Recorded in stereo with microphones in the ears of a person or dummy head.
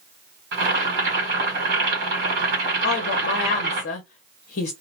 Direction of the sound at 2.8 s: 50° left (ahead or behind).